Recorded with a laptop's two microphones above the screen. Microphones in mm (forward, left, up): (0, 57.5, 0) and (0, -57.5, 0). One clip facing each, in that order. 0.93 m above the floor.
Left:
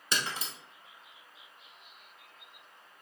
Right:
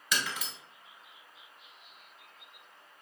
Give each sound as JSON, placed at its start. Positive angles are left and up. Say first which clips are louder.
{"t": 0.1, "sound": "breaking glass", "louder": "even", "side_deg": 35, "distance_m": 1.1}